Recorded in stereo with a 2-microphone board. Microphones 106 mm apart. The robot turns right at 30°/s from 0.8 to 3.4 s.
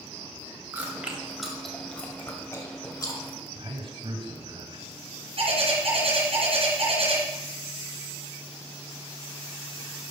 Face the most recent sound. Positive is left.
turn(degrees=-70)  # may be behind; listen again after turning